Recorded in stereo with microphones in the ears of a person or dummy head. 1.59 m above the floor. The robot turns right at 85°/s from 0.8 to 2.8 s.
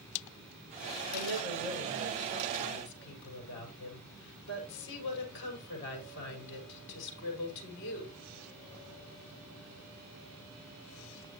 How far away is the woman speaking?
About 6 m.